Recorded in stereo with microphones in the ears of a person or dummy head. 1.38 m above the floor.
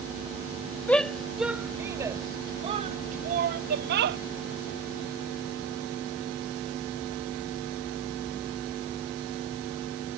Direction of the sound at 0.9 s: 5° left (ahead or behind).